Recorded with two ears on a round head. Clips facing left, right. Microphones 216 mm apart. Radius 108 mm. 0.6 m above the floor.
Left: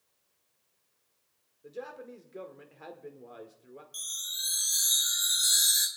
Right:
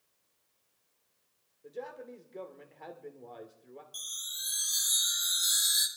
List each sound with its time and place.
1.6 s a man speaking: 10° left (ahead or behind), 1.7 m
3.9 s a chime: 5° left (ahead or behind), 2 m